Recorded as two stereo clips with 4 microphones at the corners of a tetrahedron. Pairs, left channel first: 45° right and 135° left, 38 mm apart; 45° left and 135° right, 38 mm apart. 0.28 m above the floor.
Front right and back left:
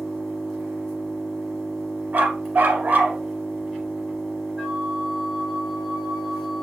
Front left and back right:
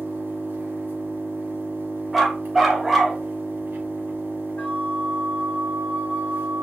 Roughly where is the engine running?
Behind right.